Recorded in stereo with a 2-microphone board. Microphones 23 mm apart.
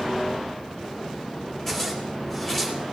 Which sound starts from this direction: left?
A zipper, at 1.7 s.